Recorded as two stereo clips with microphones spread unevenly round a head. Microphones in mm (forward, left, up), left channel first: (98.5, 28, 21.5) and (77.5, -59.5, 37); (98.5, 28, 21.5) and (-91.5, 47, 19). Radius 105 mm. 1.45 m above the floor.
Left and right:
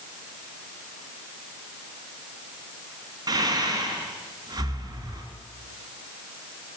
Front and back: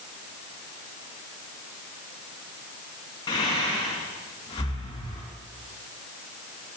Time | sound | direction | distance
3.3 | breathing | 75° right | 2.5 m